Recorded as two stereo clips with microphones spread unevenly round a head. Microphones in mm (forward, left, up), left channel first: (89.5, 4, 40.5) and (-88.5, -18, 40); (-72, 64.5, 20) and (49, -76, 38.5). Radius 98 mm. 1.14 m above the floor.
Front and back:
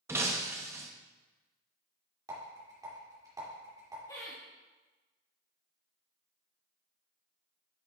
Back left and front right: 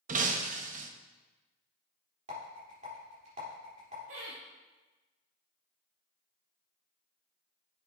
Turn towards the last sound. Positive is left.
turn(degrees=-65)